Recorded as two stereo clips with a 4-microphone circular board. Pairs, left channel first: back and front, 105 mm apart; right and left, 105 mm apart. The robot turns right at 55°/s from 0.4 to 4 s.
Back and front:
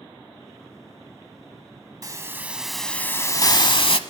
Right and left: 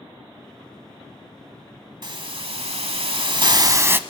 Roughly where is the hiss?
Ahead left.